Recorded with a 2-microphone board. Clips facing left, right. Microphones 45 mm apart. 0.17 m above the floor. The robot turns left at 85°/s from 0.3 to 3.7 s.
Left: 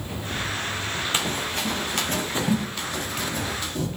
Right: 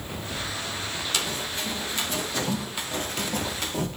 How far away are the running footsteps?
About 3 m.